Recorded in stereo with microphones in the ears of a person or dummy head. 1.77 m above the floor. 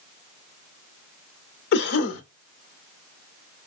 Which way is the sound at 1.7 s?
60° left (ahead or behind).